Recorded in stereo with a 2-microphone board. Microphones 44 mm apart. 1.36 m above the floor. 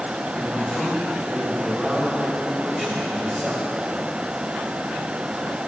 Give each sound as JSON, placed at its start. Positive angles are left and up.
{"t": 0.3, "sound": "a man speaking", "side_deg": 10, "distance_m": 4.0}